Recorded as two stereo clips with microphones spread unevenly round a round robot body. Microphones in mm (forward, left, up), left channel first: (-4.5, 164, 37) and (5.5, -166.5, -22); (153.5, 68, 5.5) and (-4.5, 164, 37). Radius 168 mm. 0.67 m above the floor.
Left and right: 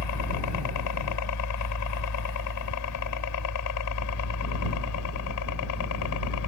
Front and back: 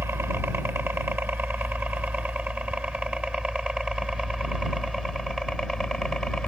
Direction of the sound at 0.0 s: 70° left.